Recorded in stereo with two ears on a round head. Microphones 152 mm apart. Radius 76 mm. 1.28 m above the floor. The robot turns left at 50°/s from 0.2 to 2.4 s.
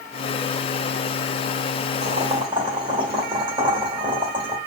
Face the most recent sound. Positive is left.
turn(degrees=-30)  # may be behind; listen again after turning